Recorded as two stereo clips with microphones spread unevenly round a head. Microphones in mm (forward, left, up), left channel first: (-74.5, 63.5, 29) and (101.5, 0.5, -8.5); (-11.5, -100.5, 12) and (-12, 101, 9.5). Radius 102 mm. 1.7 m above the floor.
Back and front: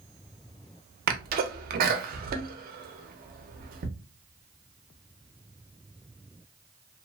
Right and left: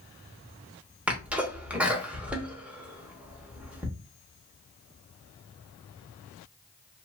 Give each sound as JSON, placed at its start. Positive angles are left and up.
{"t": 1.1, "sound": "a sneeze", "azimuth_deg": 10, "distance_m": 0.7}